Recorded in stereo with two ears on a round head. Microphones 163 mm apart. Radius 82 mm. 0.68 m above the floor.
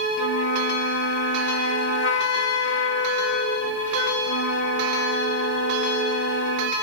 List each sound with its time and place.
0.2 s a flute: 70° left (ahead or behind)